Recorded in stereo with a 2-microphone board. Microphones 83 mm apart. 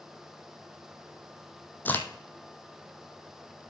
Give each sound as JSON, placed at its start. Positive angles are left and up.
{"t": 1.9, "sound": "a crack", "side_deg": 20, "distance_m": 1.0}